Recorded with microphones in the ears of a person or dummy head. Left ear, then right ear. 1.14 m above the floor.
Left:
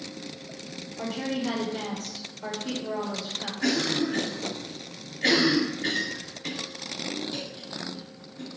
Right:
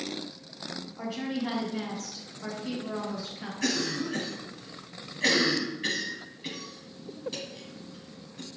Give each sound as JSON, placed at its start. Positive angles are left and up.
{"t": 1.0, "sound": "a woman speaking", "side_deg": -15, "distance_m": 0.9}
{"t": 3.6, "sound": "a cough", "side_deg": -50, "distance_m": 1.5}